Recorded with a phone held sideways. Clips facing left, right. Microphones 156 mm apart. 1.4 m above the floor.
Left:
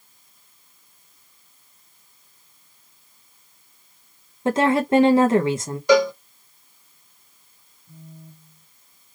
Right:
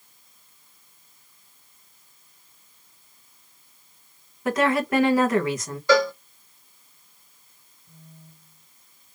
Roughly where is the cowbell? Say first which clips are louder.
Left 3 dB; centre.